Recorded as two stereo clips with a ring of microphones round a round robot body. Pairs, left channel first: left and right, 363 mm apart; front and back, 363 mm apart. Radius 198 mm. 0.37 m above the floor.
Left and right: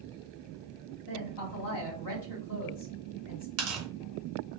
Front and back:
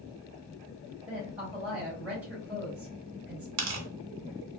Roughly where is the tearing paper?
Behind right.